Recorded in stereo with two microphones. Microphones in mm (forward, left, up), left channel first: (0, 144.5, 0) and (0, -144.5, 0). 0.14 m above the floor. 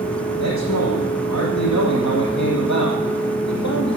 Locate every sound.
0.4 s a man speaking: 70° left (ahead or behind), 6 m